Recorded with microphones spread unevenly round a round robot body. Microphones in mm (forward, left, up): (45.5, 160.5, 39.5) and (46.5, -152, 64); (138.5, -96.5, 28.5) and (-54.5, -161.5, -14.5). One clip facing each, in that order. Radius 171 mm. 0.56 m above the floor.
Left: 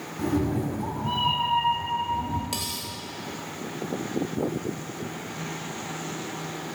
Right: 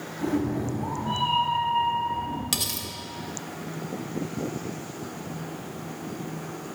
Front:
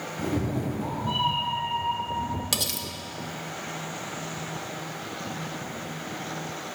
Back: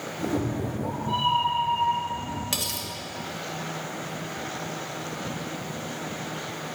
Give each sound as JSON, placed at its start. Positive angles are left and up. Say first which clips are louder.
{"t": 0.2, "sound": "a cat meowing", "louder": "left 1 dB, back 1 dB", "azimuth_deg": 45, "distance_m": 1.6}
{"t": 2.5, "sound": "cutlery clinking", "louder": "right 1 dB, front 1 dB", "azimuth_deg": -35, "distance_m": 0.9}